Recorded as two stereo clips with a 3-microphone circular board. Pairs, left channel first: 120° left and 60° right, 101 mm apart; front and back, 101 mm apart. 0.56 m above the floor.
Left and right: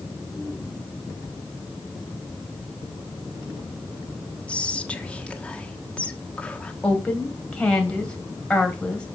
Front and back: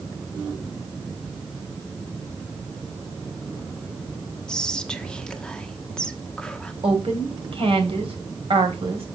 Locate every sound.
4.5 s whispering: 65° left, 1.1 m
6.8 s a woman speaking: 160° right, 2.5 m